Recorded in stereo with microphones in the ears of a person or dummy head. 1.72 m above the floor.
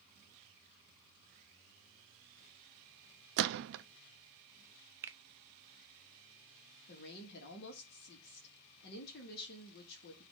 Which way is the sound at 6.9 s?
60° left (ahead or behind).